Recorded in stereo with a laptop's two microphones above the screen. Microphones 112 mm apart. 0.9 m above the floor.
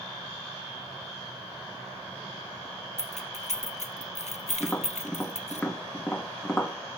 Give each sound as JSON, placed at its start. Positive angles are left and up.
{"t": 3.0, "sound": "keys jangling", "side_deg": 80, "distance_m": 0.6}
{"t": 4.6, "sound": "tapping", "side_deg": 10, "distance_m": 2.0}